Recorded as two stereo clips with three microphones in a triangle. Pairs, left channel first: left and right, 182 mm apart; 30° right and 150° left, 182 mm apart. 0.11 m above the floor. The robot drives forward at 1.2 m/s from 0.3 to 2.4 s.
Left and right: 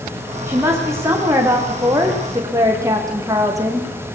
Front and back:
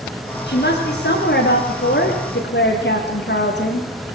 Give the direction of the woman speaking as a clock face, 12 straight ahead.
12 o'clock.